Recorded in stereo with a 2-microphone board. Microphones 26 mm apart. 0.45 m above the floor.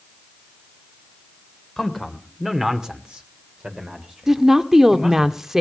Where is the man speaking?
Centre (ahead or behind), 2.5 m; by 5.3 s 35° right (ahead or behind), 4 m.